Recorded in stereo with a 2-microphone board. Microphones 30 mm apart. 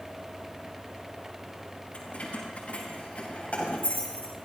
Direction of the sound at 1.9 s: 45° left (ahead or behind).